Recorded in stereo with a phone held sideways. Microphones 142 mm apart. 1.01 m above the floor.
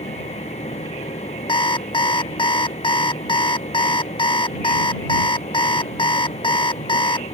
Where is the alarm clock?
35° left (ahead or behind).